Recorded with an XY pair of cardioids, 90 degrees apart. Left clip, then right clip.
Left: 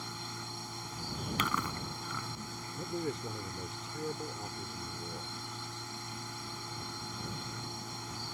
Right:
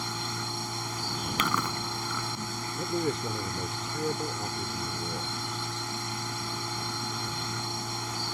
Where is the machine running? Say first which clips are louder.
Right 9 dB; 65° right.